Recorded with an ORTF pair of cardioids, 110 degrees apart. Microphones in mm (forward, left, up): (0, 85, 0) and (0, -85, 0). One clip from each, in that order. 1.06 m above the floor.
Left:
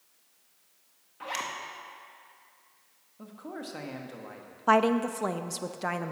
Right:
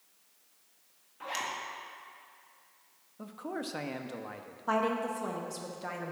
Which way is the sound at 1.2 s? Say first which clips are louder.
Left 2 dB; 20° left.